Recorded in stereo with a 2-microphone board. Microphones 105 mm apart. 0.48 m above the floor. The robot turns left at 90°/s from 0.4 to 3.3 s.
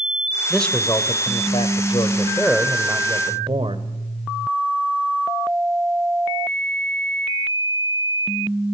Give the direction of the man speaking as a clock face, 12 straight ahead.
6 o'clock.